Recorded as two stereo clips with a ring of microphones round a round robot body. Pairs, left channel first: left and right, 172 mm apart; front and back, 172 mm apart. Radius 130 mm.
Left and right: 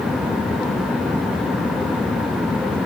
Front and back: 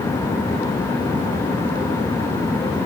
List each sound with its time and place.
Only background noise.